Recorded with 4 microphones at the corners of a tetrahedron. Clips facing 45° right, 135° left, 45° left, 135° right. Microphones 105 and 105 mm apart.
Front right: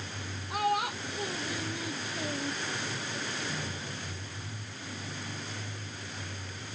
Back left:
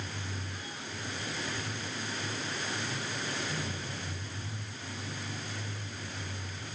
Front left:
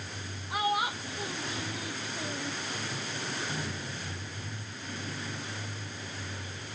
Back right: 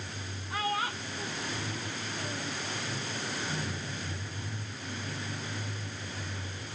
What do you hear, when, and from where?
0.5 s a child speaking: 30° right; by 2.5 s 35° right